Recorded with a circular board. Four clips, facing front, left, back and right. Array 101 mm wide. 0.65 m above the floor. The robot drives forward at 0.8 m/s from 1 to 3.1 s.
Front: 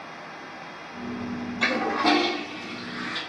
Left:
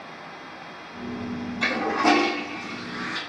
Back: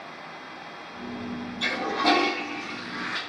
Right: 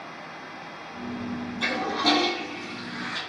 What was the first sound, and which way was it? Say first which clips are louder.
A toilet flushing: left 4 dB, front 2 dB; 25° left.